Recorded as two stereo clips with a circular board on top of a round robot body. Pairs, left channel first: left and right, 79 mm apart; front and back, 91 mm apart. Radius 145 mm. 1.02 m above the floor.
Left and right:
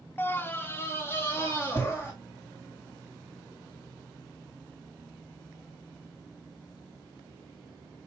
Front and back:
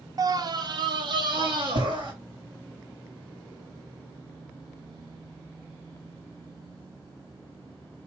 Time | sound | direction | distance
0.2 | a scream | 145° left | 0.6 m